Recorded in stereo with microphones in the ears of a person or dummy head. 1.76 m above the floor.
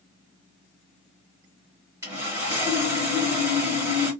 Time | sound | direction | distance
2.0 | sawing | 20° right (ahead or behind) | 1.4 m